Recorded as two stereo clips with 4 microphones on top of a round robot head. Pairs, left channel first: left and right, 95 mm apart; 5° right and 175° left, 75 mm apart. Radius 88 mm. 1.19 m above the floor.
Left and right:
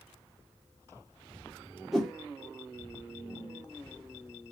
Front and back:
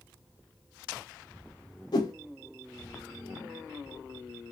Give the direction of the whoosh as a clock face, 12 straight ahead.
12 o'clock.